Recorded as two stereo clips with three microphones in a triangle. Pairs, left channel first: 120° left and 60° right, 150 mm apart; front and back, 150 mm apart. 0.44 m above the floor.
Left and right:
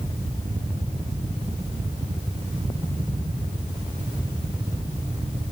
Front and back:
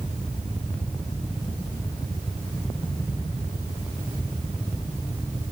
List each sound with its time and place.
Only background noise.